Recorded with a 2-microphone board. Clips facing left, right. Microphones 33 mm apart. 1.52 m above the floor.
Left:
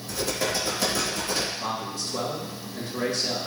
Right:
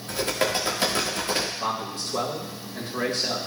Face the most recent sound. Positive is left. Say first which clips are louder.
# right 2 dB
turn(degrees=-45)  # may be behind; listen again after turning